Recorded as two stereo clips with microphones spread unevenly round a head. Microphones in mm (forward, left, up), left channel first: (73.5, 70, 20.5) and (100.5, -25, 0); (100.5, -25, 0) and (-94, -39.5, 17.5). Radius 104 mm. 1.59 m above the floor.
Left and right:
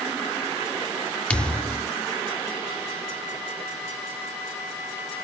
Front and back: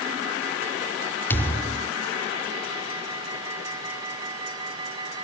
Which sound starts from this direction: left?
A thud, at 1.3 s.